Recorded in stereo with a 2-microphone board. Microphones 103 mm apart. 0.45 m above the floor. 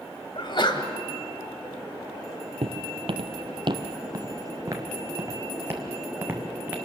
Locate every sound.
0.3 s a sneeze: 50° left (ahead or behind), 2 m
2.6 s footsteps: 65° right (ahead or behind), 0.8 m; by 6.8 s 20° right (ahead or behind), 2.5 m